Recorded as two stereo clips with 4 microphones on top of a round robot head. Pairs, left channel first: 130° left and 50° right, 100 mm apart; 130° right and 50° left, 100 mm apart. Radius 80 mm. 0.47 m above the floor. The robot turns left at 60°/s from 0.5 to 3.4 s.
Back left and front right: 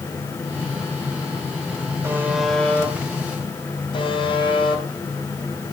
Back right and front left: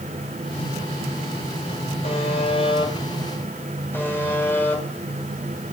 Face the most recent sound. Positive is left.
turn(degrees=165)